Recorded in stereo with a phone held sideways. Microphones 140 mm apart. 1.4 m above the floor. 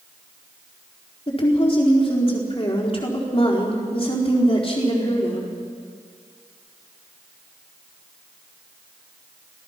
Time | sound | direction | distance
1.3 | a woman speaking | 40° left (ahead or behind) | 4 m